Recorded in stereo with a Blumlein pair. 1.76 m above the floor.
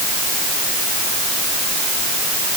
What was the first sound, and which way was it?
Only background noise.